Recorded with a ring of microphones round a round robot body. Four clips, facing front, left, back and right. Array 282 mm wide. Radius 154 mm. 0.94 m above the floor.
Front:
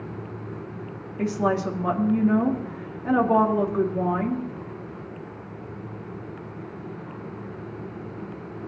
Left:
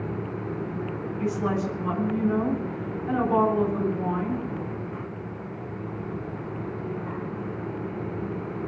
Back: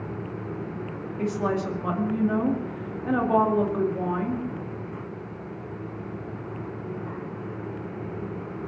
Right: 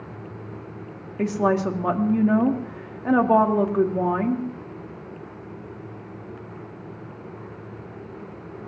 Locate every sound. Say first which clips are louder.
1.2 s a woman speaking: right 6 dB, front 3 dB; 80° right, 2.5 m